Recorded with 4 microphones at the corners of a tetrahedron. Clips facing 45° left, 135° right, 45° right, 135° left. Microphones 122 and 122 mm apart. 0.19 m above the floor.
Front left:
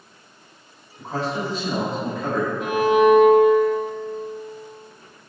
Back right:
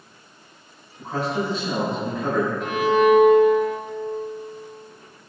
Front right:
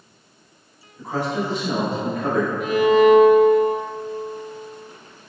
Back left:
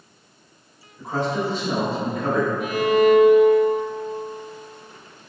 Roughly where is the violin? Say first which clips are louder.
Front left 3 dB, front right 4 dB; ahead right.